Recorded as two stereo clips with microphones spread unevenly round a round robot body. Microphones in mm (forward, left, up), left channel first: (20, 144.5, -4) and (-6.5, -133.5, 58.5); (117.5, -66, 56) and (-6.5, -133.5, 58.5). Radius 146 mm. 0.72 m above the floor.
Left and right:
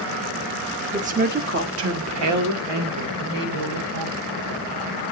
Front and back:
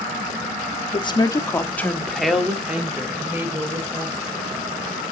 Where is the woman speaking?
20° right, 1.3 m; by 4.2 s 80° right, 3 m.